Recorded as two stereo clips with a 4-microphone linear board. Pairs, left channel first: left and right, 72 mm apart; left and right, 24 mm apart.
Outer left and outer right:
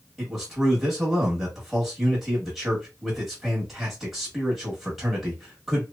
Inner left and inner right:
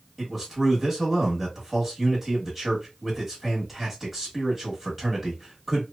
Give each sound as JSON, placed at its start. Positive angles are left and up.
{"t": 0.2, "sound": "a man speaking", "side_deg": -5, "distance_m": 1.0}